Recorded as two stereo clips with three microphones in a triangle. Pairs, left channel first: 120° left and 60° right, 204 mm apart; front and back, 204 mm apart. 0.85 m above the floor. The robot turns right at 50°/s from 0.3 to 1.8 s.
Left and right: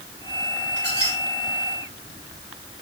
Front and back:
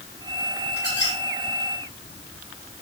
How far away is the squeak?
About 5.5 m.